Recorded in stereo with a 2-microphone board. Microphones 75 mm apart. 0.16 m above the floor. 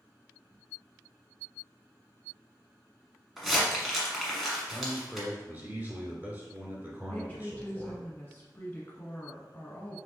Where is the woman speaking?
25° left (ahead or behind), 1.1 m.